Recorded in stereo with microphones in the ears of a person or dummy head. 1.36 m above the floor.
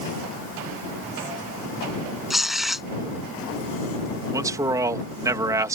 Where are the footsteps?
I don't hear footsteps.